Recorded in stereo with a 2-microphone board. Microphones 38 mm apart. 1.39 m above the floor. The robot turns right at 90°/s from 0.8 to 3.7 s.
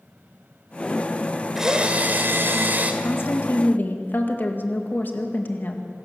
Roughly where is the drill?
Behind.